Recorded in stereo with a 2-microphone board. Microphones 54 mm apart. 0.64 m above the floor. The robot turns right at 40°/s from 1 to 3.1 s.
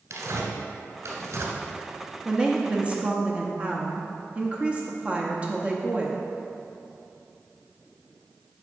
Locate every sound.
0.1 s tearing paper: 70° right (ahead or behind), 1.4 m
2.2 s a woman speaking: 15° right (ahead or behind), 0.7 m; by 6.2 s 25° right (ahead or behind), 0.7 m